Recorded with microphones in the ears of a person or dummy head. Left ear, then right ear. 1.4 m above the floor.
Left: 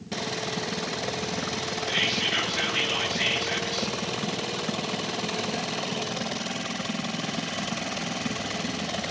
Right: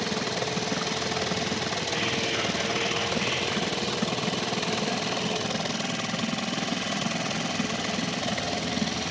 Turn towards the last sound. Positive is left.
turn(degrees=45)  # may be behind; listen again after turning